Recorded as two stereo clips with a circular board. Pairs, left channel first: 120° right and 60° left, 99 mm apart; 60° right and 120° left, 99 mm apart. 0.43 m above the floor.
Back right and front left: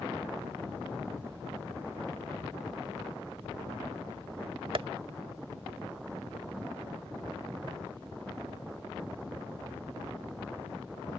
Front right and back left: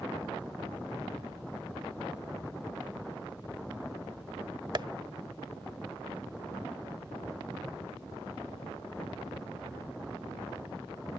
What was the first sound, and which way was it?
Tapping, 80° left.